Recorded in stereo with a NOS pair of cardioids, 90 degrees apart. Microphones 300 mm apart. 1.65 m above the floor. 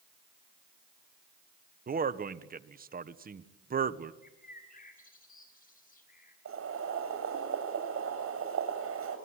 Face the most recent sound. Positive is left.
turn(degrees=-45)